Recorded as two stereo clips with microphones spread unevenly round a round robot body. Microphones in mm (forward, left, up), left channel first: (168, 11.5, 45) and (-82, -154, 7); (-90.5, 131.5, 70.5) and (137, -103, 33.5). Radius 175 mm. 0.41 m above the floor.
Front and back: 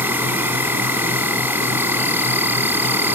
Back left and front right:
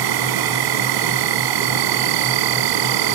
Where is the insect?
60° right.